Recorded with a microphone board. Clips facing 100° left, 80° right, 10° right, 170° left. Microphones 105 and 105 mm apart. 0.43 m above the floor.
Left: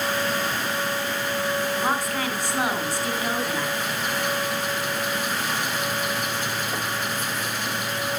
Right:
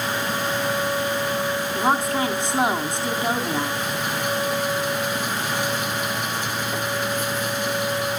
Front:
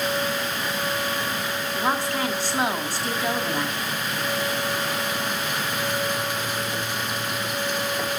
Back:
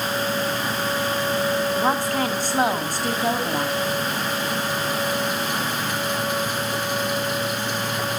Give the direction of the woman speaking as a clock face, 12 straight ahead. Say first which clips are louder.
Right 4 dB, back 3 dB; 5 o'clock.